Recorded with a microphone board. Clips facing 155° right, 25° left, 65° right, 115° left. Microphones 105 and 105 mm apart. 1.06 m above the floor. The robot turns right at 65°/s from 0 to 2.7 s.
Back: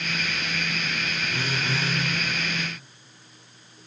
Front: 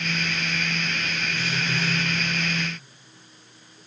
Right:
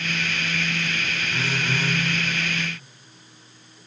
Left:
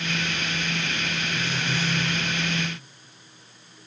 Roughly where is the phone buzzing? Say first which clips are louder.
Even, right 4 dB; behind right.